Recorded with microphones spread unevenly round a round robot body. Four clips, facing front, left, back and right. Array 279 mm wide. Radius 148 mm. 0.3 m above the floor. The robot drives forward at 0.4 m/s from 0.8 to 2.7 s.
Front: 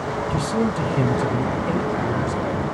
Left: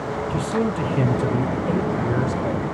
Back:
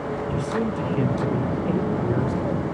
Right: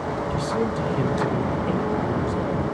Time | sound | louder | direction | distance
0.3 | a man speaking | left 3 dB, front 4 dB | 45° left | 1.0 m